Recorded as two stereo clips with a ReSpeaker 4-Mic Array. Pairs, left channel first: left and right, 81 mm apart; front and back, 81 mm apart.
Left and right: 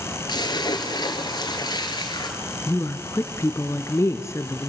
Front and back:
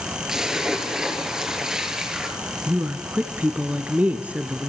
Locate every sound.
0.3 s a splash: 100° left, 3 m
2.7 s a woman speaking: 120° left, 1.4 m